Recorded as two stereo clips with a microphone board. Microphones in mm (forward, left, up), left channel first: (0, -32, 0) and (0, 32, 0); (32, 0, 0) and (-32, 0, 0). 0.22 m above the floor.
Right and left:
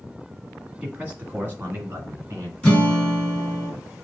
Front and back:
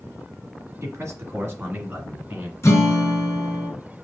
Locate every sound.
0.8 s a man speaking: 155° left, 1.8 m; by 2.5 s 125° left, 2.5 m
2.6 s a guitar: 20° right, 1.8 m